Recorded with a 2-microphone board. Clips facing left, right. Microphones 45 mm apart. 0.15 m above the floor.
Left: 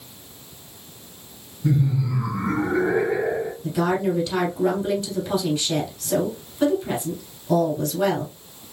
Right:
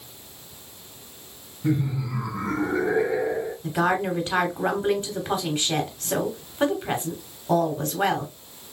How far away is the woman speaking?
About 1.3 m.